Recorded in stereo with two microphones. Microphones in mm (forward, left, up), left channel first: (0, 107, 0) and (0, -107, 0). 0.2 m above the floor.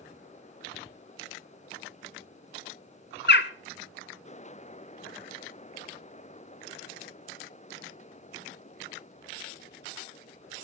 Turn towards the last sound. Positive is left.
turn(degrees=50)  # may be behind; listen again after turning